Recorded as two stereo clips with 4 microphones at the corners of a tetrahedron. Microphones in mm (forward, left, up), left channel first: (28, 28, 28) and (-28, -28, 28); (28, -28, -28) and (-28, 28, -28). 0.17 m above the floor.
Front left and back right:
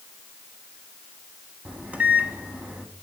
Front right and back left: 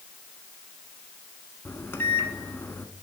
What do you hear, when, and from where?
1.6 s a microwave: 75° right, 1.0 m